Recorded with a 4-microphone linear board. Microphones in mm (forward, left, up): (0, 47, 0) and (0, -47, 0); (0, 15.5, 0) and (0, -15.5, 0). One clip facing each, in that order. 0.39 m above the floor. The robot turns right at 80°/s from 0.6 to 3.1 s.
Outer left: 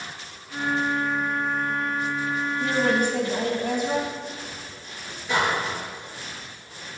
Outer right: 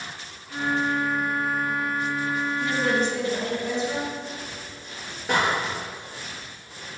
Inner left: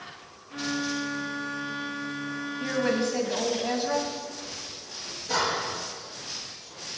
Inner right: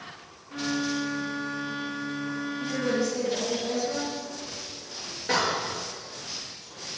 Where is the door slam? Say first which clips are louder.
Outer right 1 dB, inner right 2 dB; 65° right (ahead or behind), 6 m.